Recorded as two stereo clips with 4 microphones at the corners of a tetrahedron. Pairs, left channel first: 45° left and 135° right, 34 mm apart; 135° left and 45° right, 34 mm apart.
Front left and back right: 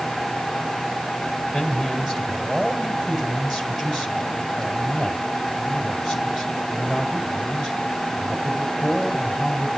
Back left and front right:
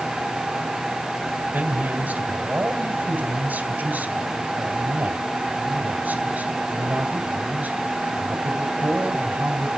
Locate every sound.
1.5 s a man speaking: 60° right, 2 m